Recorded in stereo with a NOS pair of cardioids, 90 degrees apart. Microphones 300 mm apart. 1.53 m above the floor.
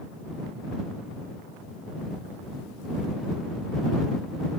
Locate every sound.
Only background noise.